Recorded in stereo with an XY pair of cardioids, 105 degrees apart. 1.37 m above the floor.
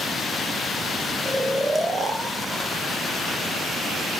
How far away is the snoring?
About 1.1 m.